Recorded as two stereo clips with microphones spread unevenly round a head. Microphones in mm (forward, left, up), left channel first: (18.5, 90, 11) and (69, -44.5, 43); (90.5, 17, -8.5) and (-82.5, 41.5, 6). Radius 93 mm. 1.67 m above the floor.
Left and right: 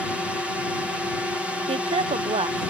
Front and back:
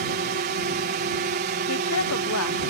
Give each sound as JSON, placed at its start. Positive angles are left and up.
{"t": 0.0, "sound": "a drone", "azimuth_deg": -160}
{"t": 1.7, "sound": "a woman speaking", "azimuth_deg": -20}